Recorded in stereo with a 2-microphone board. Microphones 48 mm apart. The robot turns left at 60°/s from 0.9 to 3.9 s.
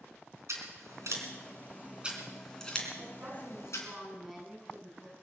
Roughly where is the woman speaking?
Behind right.